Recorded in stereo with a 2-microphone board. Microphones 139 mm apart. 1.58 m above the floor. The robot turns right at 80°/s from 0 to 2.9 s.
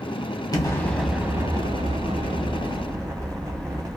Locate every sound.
0.5 s an explosion: 140° left, 0.8 m; by 4.0 s 30° right, 0.8 m